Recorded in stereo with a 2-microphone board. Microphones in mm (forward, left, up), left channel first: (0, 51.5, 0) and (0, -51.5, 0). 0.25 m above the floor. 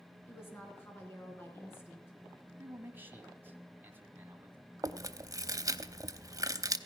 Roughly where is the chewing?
Right.